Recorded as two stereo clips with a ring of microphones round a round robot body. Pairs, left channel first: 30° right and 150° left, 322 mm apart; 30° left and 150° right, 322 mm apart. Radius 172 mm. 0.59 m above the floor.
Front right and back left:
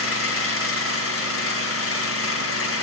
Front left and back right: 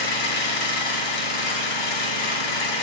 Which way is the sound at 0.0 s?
20° left.